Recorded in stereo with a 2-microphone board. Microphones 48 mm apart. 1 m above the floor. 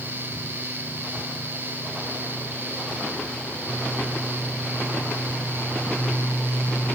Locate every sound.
Only background noise.